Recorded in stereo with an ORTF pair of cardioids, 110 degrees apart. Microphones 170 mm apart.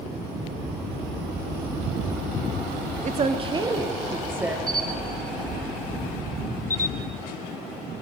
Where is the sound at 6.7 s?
15° left, 0.5 m.